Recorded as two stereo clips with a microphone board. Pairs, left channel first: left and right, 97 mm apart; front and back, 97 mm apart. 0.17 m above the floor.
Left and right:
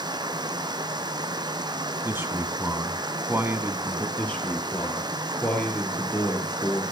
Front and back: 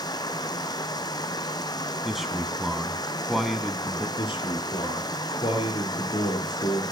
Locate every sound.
0.0 s running water: 45° right, 1.3 m
2.0 s a man speaking: 95° right, 1.1 m
4.2 s a man speaking: 15° left, 3.5 m